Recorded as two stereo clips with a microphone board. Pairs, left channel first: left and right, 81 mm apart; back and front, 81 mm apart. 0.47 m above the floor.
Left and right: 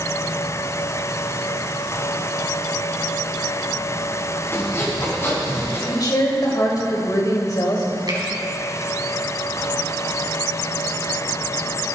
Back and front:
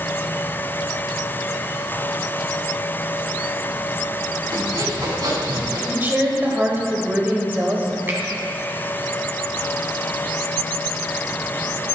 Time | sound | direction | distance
4.5 | sawing | 35° left | 3.5 m
5.9 | a woman speaking | 60° left | 2.5 m
8.1 | a finger snap | 65° right | 2.5 m